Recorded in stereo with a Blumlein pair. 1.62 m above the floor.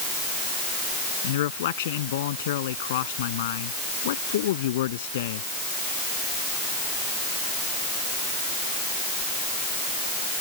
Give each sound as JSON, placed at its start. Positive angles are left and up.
{"t": 1.2, "sound": "a man speaking", "azimuth_deg": 55}